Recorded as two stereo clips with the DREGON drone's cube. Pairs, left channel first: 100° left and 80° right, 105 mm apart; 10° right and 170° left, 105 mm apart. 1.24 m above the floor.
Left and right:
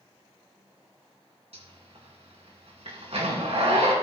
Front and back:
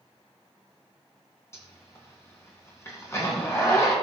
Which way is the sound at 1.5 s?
70° right.